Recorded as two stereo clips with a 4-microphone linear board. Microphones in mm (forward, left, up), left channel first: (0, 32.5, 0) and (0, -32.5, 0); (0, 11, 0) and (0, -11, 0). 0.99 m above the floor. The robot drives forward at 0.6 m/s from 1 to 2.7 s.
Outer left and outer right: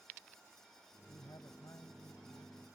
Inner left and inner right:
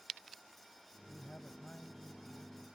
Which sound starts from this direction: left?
A man speaking, at 1.1 s.